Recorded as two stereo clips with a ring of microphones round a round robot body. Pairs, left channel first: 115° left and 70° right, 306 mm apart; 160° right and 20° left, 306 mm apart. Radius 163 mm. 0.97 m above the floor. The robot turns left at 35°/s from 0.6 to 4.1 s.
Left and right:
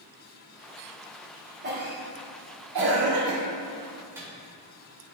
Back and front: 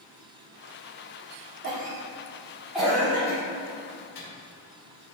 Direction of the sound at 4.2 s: 150° right.